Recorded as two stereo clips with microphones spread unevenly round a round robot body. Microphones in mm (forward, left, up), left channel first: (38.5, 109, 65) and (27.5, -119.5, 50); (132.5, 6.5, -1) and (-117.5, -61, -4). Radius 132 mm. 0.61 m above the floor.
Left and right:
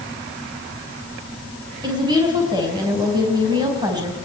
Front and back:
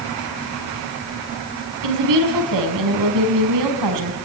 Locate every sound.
1.8 s a woman speaking: 165° right, 4.5 m